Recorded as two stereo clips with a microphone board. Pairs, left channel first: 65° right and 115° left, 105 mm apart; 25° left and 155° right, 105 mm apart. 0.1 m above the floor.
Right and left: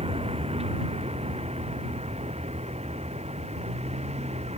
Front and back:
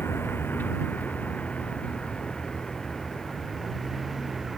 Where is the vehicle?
90° left; by 4.6 s 115° left.